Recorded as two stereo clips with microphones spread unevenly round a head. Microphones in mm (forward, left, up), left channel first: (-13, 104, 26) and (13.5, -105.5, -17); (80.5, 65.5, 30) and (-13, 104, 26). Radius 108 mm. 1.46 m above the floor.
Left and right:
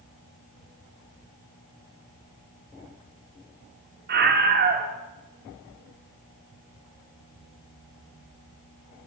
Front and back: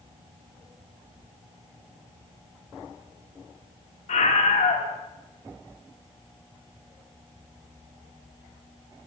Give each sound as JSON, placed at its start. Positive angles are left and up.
{"t": 4.1, "sound": "a scream", "azimuth_deg": -35, "distance_m": 3.5}